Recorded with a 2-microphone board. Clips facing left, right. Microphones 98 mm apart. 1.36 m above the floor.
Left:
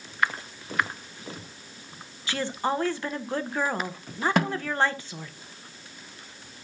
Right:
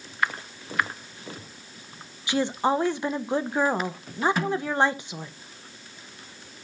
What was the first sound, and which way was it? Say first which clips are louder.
A woman speaking: right 4 dB; 20° right (ahead or behind).